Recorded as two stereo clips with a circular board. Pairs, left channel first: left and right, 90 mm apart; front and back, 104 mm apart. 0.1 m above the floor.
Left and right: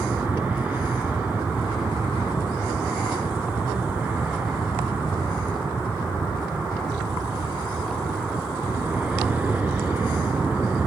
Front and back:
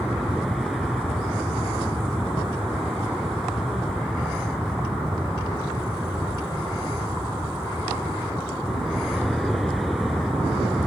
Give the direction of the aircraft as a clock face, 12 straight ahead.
3 o'clock.